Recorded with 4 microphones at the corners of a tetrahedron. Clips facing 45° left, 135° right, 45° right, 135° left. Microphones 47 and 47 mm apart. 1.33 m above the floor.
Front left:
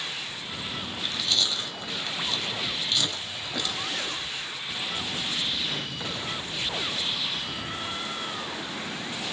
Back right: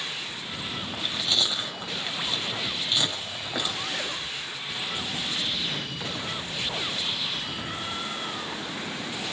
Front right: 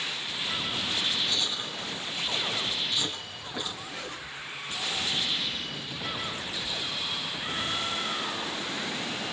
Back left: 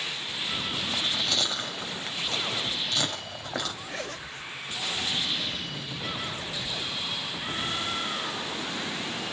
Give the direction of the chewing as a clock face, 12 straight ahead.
7 o'clock.